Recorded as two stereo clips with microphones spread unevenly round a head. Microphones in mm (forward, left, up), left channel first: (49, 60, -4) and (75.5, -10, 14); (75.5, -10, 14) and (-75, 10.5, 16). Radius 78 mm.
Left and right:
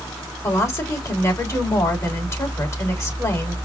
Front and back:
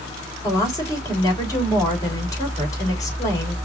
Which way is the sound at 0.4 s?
60° left.